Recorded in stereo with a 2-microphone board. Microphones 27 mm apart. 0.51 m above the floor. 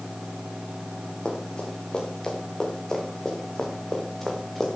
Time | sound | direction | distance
1.2 | running footsteps | 35° left (ahead or behind) | 5.5 m